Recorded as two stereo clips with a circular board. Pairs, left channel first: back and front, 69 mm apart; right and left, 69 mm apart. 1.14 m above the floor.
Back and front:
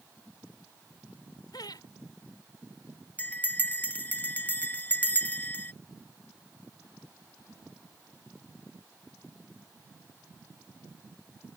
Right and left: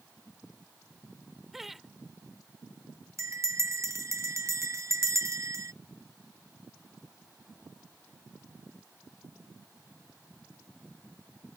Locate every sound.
1.5 s laughter: 175° left
3.2 s a bell: 120° left